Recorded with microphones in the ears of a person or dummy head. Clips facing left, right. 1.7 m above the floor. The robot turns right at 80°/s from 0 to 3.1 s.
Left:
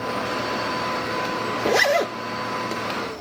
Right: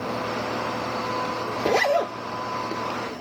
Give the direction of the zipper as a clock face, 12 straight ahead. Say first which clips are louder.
Left 1 dB; 12 o'clock.